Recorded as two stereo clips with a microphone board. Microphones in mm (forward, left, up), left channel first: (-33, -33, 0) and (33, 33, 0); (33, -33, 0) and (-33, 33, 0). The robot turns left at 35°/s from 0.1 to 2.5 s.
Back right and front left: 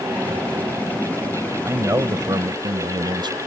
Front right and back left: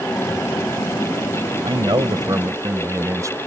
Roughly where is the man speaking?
Left.